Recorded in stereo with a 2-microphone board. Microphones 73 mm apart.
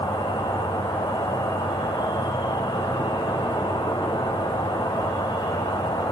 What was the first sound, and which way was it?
An insect, 90° left.